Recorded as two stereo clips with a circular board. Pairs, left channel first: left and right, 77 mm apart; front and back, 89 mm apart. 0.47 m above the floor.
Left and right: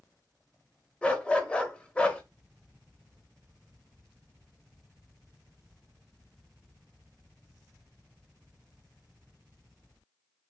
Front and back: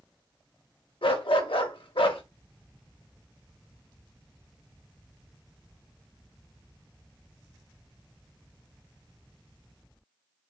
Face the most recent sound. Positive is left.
turn(degrees=15)